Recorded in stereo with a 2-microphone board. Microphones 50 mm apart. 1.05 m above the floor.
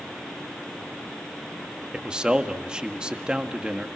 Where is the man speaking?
20° right (ahead or behind), 1.6 m.